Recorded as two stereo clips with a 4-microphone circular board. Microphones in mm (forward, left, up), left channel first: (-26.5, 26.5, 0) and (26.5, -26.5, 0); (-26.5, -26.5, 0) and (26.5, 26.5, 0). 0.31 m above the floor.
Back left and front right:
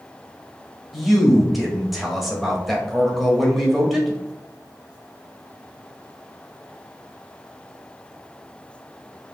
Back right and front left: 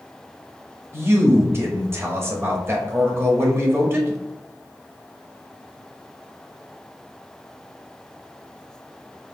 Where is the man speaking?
45° left, 1.1 m.